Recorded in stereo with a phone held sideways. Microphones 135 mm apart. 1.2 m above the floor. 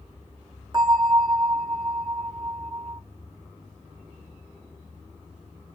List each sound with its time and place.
0.7 s a bell: 35° right (ahead or behind), 1.8 m